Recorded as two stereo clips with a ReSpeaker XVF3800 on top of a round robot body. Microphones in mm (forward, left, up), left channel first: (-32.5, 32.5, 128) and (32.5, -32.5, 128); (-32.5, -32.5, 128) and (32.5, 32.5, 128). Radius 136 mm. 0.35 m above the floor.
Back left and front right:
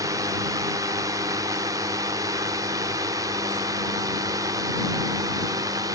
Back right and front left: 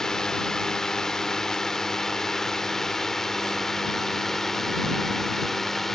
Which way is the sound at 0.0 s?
55° right.